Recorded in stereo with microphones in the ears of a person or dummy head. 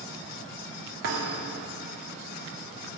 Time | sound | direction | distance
1.0 | a thud | 60° right (ahead or behind) | 2 m